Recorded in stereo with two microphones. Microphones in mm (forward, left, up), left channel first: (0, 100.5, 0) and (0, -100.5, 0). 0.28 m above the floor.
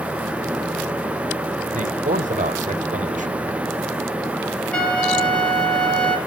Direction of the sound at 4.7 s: 5° left (ahead or behind).